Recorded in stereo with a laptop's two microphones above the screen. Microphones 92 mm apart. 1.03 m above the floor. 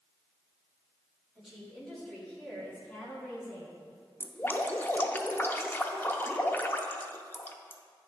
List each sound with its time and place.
1.4 s a woman speaking: 5° right (ahead or behind), 2.5 m; by 3.8 s 20° left (ahead or behind), 3 m
4.2 s dripping: 20° left (ahead or behind), 0.6 m